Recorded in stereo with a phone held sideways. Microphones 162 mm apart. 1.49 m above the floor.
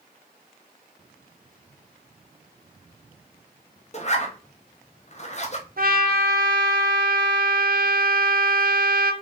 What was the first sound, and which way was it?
A zipper, 45° left (ahead or behind).